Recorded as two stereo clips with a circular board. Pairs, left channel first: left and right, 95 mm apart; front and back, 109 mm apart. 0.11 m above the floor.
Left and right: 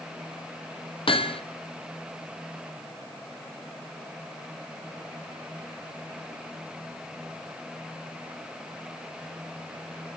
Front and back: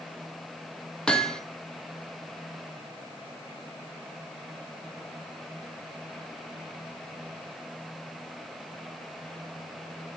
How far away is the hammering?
About 2 m.